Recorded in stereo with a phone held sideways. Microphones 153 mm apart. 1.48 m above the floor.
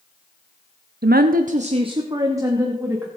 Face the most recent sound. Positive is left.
turn(degrees=-10)  # may be behind; listen again after turning